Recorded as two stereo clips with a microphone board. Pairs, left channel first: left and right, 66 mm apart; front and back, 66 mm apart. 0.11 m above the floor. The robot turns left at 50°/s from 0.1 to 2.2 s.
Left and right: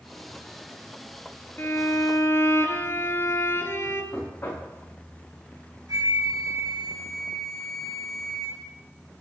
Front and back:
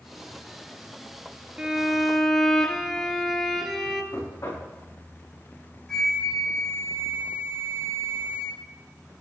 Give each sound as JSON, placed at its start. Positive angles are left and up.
{"t": 1.6, "sound": "a violin", "azimuth_deg": 115, "distance_m": 1.6}
{"t": 4.1, "sound": "knocking", "azimuth_deg": 35, "distance_m": 6.0}
{"t": 5.9, "sound": "a flute", "azimuth_deg": -80, "distance_m": 4.5}